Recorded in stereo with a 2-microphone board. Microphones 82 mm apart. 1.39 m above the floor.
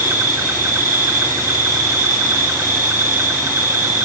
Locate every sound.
0.0 s an insect: 30° right (ahead or behind), 1.6 m